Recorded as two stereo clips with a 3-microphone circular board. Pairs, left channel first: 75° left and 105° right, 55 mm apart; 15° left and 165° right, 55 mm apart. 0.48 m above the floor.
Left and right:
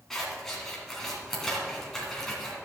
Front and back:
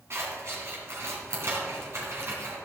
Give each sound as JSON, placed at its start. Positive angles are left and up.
{"t": 0.1, "sound": "scissors", "azimuth_deg": 160, "distance_m": 2.5}